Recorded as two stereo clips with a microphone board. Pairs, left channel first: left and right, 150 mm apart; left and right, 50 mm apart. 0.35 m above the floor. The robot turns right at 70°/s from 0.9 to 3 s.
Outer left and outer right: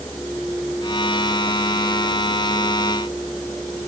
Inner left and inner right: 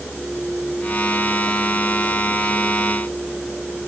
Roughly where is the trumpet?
No trumpet in this recording.